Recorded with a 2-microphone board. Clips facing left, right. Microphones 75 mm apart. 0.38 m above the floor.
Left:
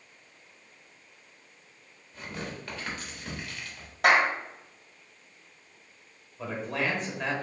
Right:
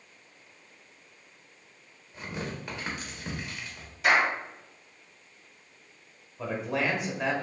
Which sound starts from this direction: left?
A clap, at 4.0 s.